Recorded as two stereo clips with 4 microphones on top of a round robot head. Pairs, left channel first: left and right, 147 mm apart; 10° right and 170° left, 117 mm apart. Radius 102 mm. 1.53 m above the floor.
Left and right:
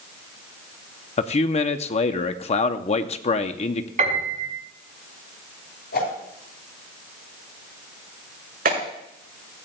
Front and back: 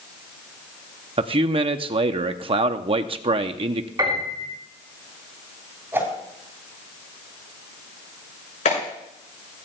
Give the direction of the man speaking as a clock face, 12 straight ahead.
8 o'clock.